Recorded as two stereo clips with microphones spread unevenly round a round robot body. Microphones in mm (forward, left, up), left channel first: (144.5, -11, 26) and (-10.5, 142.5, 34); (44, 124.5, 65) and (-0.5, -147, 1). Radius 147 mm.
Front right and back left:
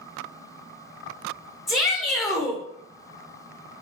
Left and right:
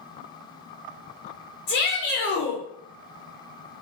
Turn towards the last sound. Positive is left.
turn(degrees=40)